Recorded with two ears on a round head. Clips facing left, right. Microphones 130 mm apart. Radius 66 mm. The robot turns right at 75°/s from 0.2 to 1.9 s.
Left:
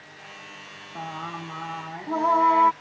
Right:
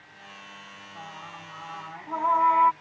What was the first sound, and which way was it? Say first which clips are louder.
Singing: left 9 dB; 60° left.